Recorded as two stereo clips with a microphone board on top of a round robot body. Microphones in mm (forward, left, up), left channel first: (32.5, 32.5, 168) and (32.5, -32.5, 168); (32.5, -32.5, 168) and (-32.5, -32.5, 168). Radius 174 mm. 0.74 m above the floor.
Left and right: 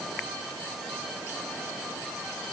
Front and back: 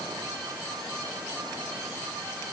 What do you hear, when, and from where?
Only background noise.